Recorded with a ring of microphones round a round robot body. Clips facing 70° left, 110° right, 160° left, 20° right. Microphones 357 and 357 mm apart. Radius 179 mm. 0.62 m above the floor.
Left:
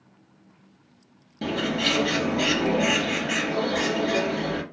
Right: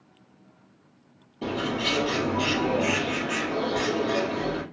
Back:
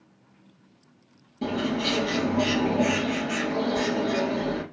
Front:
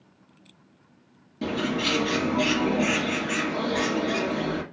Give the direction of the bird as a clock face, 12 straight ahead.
10 o'clock.